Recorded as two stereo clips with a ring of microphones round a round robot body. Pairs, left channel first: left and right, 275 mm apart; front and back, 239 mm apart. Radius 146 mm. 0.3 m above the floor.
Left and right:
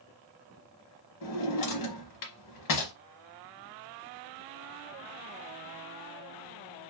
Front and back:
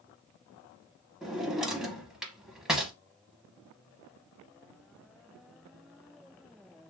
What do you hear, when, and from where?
1.2 s a drawer: 90° left, 0.9 m